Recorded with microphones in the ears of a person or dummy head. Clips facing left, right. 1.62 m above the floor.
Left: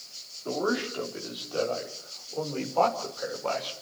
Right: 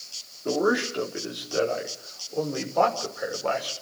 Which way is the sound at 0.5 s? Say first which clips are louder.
Right 5 dB; 30° right (ahead or behind).